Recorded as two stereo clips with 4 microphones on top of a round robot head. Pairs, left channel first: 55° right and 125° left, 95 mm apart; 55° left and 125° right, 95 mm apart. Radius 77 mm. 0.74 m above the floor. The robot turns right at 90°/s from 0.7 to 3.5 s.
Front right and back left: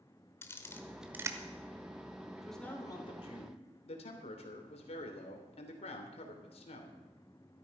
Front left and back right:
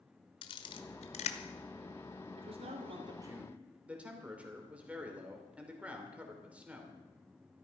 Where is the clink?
No clink in this recording.